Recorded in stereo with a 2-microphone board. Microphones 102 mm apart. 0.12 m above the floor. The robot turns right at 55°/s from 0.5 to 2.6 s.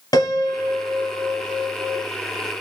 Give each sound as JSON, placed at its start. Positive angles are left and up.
{"t": 0.1, "sound": "a piano", "azimuth_deg": 75, "distance_m": 1.2}